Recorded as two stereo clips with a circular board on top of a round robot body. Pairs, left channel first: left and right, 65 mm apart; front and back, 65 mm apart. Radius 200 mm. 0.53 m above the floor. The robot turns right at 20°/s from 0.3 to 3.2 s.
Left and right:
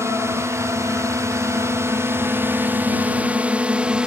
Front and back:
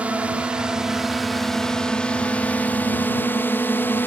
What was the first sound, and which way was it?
A drone, 115° right.